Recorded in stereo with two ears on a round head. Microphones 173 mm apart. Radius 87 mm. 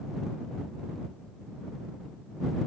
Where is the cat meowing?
No cat meowing in this recording.